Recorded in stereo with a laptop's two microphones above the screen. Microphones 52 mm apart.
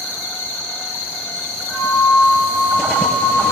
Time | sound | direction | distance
1.7 | a flute | 15° left (ahead or behind) | 4 m